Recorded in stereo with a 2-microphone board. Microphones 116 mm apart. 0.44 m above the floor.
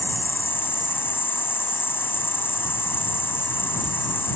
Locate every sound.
0.0 s an insect: 20° left (ahead or behind)